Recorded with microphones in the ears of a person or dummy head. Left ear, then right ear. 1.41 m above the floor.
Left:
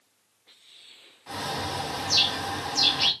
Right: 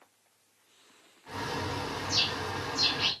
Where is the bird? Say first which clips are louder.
Left 3 dB; 35° left (ahead or behind), 1.4 m.